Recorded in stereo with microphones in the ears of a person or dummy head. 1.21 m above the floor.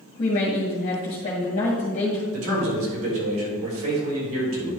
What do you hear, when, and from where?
0.2 s a woman speaking: 40° left (ahead or behind), 2.0 m
2.3 s a man speaking: 85° right, 4 m